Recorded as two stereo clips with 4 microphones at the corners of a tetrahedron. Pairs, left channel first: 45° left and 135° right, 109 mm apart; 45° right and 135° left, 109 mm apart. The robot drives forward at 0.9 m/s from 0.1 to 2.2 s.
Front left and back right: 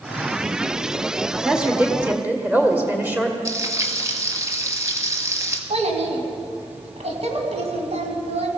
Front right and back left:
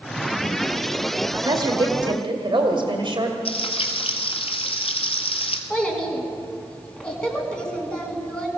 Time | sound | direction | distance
1.3 | a woman speaking | 135° left | 1.4 m
3.5 | frying | 75° right | 1.5 m
5.7 | a child speaking | 130° right | 2.5 m